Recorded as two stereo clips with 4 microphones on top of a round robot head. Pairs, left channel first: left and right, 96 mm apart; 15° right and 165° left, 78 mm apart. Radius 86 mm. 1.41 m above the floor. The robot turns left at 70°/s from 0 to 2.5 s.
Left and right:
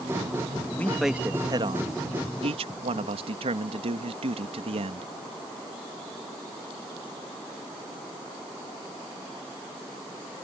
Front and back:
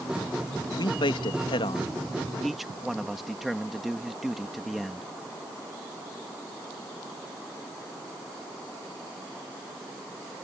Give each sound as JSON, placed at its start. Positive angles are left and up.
{"t": 0.7, "sound": "a man speaking", "azimuth_deg": 20}